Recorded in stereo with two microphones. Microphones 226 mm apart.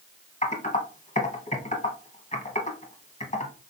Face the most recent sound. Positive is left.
turn(degrees=30)  # may be behind; listen again after turning